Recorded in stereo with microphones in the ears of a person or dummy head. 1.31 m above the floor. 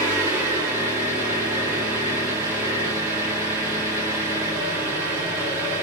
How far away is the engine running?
About 3.5 m.